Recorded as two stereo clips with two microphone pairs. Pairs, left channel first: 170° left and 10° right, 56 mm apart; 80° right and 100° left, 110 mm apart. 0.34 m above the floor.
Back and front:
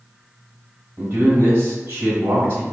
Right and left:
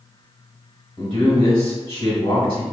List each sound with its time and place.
1.0 s a man speaking: 60° right, 1.8 m